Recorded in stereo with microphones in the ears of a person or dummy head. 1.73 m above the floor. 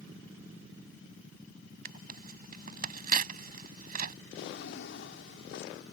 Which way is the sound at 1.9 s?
50° right (ahead or behind).